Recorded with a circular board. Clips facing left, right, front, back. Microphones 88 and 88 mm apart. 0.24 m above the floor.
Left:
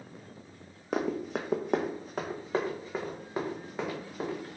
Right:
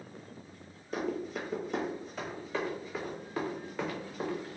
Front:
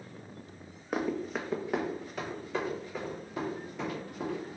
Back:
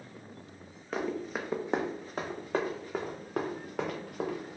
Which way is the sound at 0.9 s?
75° left.